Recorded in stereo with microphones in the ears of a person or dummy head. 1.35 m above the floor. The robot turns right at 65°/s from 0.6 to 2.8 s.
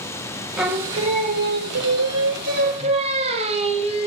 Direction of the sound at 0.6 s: 175° right.